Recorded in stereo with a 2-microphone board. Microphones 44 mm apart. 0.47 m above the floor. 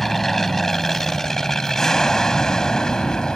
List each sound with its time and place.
0.0 s an aircraft: 5° left (ahead or behind); by 3.4 s 15° left (ahead or behind)